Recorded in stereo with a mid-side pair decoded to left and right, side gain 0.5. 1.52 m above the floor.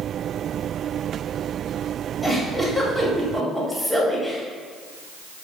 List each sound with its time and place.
2.2 s a giggle: 5° left, 0.9 m